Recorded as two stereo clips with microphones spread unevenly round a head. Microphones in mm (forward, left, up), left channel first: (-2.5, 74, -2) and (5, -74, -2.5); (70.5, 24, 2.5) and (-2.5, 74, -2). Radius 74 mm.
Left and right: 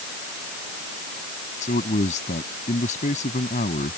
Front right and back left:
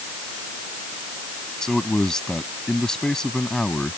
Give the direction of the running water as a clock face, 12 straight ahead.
I don't hear running water.